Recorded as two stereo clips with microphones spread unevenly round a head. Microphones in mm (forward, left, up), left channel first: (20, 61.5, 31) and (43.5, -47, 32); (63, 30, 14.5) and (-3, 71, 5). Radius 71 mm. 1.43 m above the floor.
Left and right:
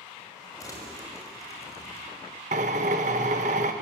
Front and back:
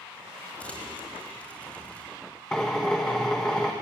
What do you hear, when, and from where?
0.6 s crumpling: 40° left, 5.5 m
2.5 s a drill: 115° right, 1.3 m